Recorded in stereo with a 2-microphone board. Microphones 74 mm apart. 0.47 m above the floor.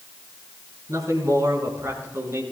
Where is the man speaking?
50° right (ahead or behind), 4.5 m; by 2.4 s 35° right (ahead or behind), 4.5 m.